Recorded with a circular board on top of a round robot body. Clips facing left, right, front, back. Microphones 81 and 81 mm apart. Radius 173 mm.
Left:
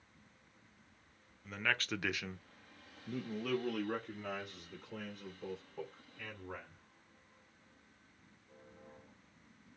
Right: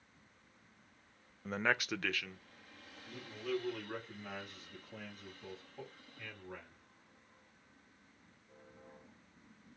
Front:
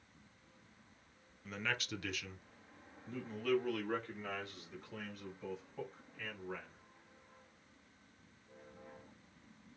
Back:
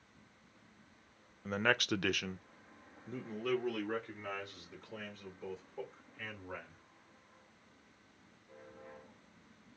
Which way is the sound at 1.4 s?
135° right.